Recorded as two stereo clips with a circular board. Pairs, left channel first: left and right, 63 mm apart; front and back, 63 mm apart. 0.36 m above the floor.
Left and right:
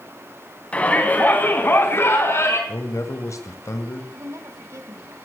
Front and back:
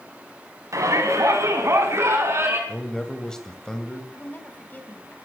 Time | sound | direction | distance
0.7 | a shout | 160° left | 3.5 m
2.7 | a man speaking | 80° left | 1.7 m
4.1 | a woman speaking | 60° right | 2.5 m